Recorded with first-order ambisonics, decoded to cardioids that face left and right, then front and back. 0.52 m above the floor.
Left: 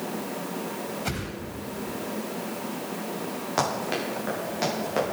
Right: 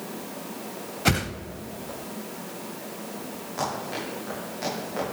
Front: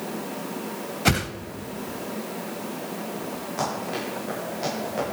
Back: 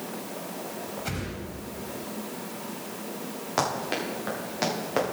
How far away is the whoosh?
About 0.7 m.